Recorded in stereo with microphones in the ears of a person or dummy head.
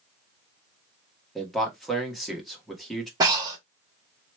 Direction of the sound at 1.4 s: Centre (ahead or behind).